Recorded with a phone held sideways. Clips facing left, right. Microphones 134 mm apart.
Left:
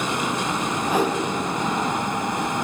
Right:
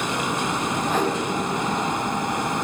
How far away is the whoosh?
About 3 m.